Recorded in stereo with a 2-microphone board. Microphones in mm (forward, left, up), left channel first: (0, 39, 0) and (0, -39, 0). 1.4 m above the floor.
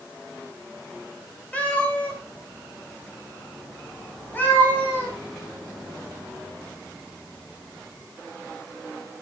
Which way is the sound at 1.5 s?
15° left (ahead or behind).